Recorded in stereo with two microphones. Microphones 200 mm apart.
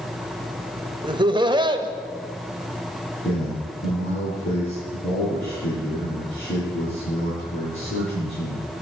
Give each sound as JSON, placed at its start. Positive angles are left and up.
{"t": 1.0, "sound": "laughter", "side_deg": -25, "distance_m": 1.0}
{"t": 3.2, "sound": "a man speaking", "side_deg": 75, "distance_m": 6.0}